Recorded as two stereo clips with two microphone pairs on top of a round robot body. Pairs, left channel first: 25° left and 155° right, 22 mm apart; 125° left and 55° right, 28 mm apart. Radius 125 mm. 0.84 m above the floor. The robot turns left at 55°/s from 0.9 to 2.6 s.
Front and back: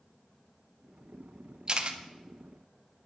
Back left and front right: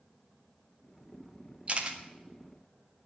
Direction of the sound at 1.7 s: 105° right.